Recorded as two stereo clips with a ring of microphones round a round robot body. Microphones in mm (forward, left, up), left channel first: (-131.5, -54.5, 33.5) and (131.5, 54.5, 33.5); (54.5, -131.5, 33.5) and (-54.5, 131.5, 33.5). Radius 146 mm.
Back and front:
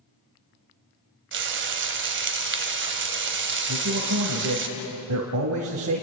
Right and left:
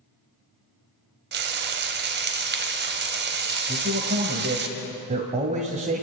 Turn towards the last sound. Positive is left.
turn(degrees=50)